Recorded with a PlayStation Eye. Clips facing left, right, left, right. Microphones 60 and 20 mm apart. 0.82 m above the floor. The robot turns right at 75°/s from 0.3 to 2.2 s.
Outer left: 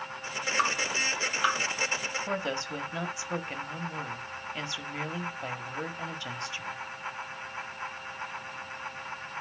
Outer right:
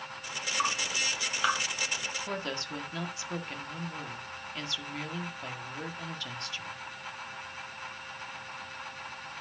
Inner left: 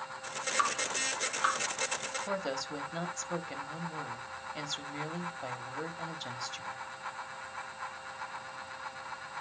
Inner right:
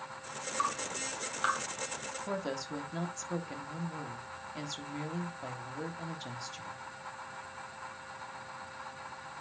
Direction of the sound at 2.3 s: 20° left (ahead or behind).